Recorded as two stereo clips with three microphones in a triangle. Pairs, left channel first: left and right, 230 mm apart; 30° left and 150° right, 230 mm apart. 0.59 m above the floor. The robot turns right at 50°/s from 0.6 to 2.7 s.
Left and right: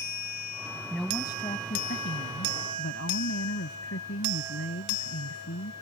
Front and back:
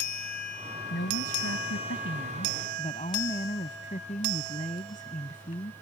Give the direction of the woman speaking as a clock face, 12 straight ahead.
12 o'clock.